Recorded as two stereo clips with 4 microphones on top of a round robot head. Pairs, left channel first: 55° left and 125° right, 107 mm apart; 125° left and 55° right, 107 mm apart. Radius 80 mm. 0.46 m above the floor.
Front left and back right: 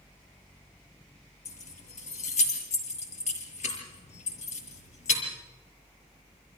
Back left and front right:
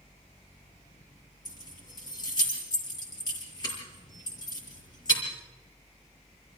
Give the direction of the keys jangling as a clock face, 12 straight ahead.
10 o'clock.